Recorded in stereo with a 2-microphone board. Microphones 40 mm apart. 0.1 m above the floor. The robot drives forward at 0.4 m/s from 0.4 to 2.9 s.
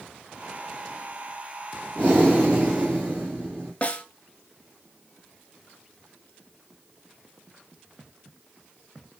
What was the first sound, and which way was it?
Breathing, 50° right (ahead or behind).